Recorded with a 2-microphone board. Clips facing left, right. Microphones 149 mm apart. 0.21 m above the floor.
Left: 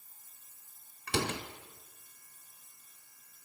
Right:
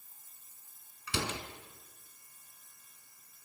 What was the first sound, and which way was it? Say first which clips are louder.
A door slam: left 3 dB; 55° left (ahead or behind).